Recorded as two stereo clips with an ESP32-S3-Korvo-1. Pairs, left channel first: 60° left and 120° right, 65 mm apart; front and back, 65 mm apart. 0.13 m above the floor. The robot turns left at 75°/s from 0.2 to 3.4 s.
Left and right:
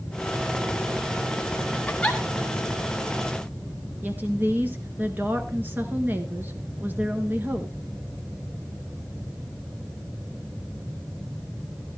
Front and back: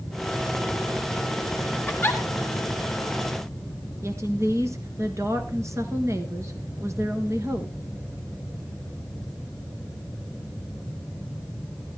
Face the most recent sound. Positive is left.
turn(degrees=-170)